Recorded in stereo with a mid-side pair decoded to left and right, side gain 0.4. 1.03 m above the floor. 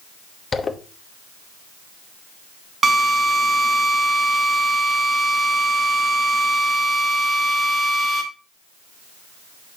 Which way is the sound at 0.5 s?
40° left.